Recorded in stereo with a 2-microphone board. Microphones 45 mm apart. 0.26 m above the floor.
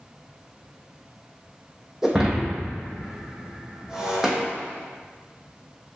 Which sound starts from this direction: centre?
Breaking glass, at 2.0 s.